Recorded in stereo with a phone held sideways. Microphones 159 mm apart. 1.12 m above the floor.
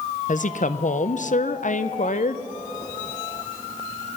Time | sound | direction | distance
0.3 | a woman speaking | 60° left (ahead or behind) | 0.5 m